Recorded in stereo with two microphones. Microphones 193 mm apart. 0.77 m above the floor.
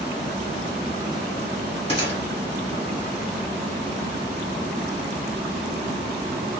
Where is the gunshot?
25° left (ahead or behind), 1.6 m.